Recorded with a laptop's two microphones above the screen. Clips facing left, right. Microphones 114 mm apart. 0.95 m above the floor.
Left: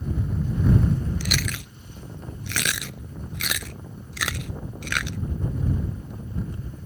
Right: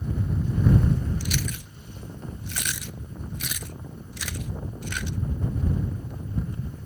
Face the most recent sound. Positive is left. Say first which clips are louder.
# left 1 dB
turn(degrees=85)